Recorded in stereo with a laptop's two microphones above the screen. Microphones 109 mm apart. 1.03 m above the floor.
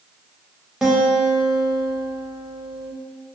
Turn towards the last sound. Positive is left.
turn(degrees=0)  # may be behind; listen again after turning